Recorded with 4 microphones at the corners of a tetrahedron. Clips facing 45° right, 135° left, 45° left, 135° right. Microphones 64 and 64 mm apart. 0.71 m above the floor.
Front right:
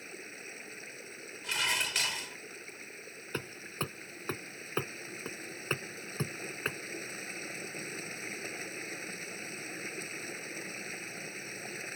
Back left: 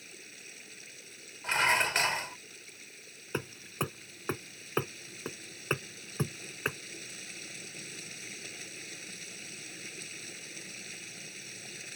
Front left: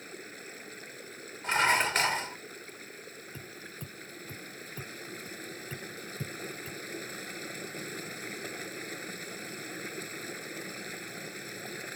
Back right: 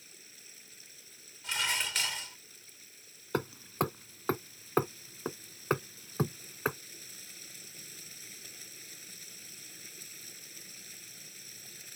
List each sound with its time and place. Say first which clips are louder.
0.0 s running water: front right 6 dB, front left 14 dB; 10° left
1.4 s dishes clattering: back left 6 dB, front left 8 dB; 85° left
3.3 s hammering: back left 3 dB, back right 17 dB; 145° right